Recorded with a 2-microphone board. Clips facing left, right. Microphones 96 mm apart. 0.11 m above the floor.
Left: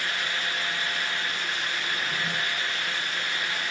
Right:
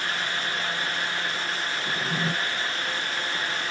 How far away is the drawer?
About 5.5 m.